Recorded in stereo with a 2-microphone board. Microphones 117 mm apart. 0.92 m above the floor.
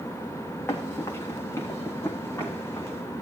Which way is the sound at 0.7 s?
25° left (ahead or behind).